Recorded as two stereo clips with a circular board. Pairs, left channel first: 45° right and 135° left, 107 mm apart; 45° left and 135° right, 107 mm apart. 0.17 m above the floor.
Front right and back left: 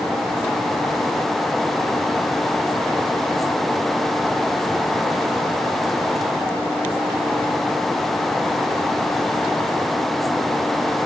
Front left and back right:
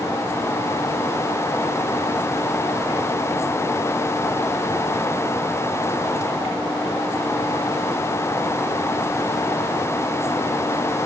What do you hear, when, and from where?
Only background noise.